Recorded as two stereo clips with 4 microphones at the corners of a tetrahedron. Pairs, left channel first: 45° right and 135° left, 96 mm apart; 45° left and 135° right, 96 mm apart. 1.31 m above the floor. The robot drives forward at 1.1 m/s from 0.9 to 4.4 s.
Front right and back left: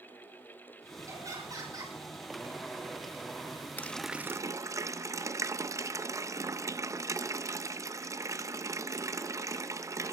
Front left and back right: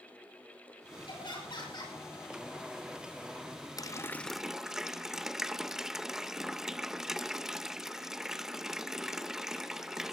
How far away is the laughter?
About 6.5 m.